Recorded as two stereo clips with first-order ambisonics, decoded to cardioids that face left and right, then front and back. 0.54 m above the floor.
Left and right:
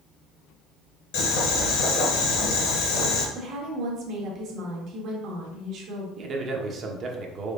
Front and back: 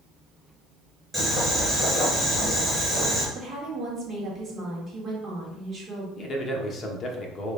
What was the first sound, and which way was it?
Boiling, 90° left.